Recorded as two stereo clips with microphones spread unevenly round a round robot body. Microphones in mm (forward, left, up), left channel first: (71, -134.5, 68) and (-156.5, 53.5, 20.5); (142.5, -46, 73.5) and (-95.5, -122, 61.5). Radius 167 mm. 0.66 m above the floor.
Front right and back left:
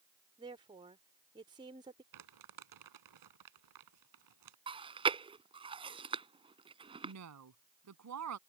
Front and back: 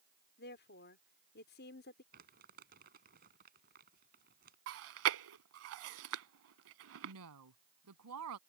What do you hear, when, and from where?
0.4 s a woman speaking: 70° left
2.1 s crumpling: 135° left
4.7 s chewing: 145° right
7.0 s a woman speaking: 165° left